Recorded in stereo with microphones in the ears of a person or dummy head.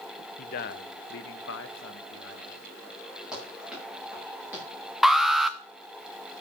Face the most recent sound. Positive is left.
turn(degrees=0)  # may be behind; listen again after turning